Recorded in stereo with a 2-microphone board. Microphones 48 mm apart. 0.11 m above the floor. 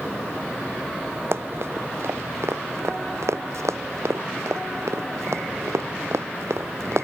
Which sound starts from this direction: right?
Running footsteps, at 1.3 s.